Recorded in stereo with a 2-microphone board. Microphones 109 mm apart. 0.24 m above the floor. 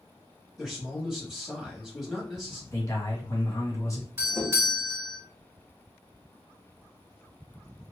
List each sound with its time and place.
0.6 s a man speaking: 5° right (ahead or behind), 1.3 m
2.7 s a man speaking: 30° left (ahead or behind), 1.5 m
4.2 s a doorbell: 25° right (ahead or behind), 1.9 m